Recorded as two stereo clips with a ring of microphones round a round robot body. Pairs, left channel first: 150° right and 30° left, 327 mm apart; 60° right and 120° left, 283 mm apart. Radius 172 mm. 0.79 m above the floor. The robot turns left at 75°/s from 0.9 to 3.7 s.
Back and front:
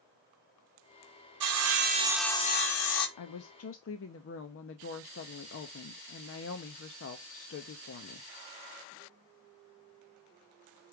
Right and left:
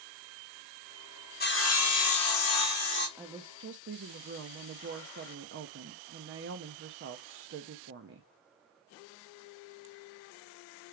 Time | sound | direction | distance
1.4 | sawing | straight ahead | 1.5 m
3.2 | a woman speaking | 155° right | 0.8 m